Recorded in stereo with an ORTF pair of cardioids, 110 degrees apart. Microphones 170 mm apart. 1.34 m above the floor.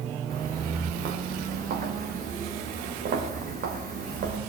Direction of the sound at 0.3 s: 60° right.